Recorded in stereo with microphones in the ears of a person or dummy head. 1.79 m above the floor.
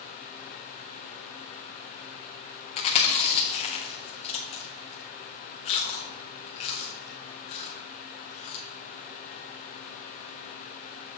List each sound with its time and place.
2.8 s chewing: 40° left (ahead or behind), 1.5 m